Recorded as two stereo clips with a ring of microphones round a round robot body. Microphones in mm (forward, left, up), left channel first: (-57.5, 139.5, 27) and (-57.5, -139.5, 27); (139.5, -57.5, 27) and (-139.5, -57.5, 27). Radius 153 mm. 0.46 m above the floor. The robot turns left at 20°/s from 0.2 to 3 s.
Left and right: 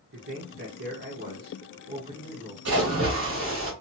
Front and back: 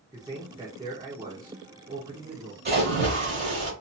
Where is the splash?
125° right, 1.6 m; by 3.7 s 130° right, 1.6 m.